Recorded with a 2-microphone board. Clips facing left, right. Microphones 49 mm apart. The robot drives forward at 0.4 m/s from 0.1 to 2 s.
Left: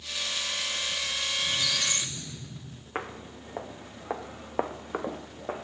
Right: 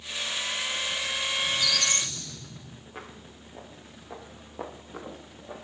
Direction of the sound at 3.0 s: 60° left (ahead or behind).